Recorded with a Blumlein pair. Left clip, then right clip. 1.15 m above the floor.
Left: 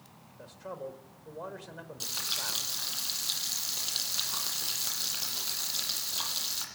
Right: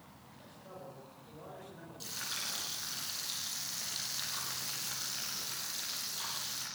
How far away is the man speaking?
About 5 m.